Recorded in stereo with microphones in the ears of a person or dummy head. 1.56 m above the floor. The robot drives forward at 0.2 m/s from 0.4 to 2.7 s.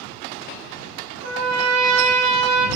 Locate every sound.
1.2 s a trumpet: 45° right (ahead or behind), 0.8 m; by 2.7 s 35° right (ahead or behind), 1.0 m